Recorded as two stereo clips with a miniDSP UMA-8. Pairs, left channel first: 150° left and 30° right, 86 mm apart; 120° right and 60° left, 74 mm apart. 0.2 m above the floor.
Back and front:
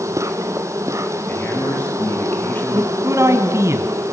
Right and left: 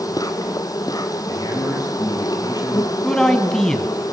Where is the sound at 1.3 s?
145° right, 6 m.